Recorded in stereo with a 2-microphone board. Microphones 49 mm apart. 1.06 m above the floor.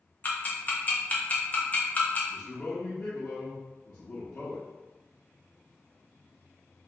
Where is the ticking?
30° left (ahead or behind), 0.8 m.